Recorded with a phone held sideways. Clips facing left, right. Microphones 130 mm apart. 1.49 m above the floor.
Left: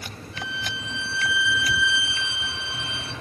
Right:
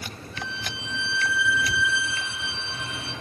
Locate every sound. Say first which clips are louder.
0.3 s a violin: left 2 dB; 80° left, 3 m